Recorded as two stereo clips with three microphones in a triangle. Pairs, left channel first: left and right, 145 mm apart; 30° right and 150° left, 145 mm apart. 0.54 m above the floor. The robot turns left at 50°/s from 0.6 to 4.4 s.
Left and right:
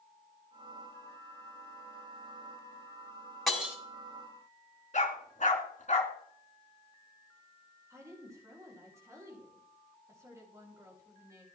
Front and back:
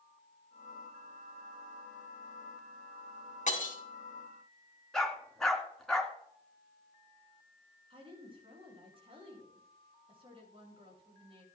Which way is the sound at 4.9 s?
55° left.